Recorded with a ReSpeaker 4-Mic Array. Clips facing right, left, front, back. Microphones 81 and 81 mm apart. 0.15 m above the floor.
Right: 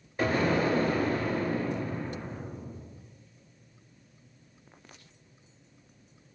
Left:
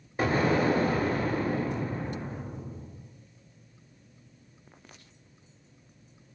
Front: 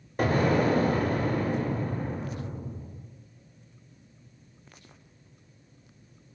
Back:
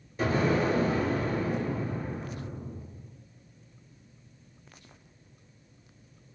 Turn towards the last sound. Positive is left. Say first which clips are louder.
# left 1 dB, front 2 dB
turn(degrees=25)